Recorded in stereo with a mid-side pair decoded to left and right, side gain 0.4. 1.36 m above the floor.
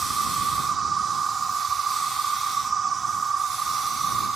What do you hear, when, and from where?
0.0 s an insect: 45° right